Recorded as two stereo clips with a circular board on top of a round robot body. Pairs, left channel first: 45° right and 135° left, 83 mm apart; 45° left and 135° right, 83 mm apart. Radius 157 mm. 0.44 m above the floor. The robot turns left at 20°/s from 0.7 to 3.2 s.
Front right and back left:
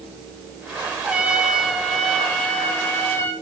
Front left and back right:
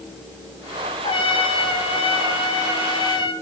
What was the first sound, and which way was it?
A trumpet, 60° left.